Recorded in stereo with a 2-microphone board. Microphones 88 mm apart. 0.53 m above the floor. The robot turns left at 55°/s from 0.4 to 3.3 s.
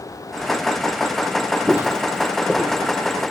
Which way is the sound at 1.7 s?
25° right (ahead or behind).